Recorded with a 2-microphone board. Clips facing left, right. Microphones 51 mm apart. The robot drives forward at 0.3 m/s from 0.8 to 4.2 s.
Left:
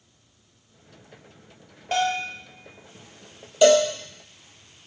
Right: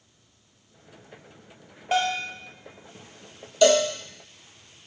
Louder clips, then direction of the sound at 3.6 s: Left 2 dB; 15° left (ahead or behind).